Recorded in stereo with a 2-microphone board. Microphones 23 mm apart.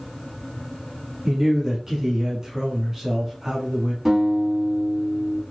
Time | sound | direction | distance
1.2 | a man speaking | 15° right (ahead or behind) | 1.1 m
4.0 | a guitar | 20° right (ahead or behind) | 1.3 m